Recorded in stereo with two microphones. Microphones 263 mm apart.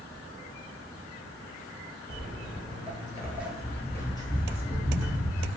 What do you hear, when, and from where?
2.1 s footsteps: 40° right (ahead or behind), 0.9 m; by 5.5 s 30° left (ahead or behind), 1.6 m